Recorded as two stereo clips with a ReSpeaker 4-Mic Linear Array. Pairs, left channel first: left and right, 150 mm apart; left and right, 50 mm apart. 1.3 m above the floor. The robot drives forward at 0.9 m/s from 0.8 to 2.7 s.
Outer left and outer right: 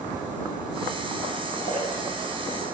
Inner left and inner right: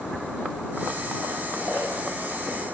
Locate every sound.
1.6 s a splash: 70° left (ahead or behind), 8.5 m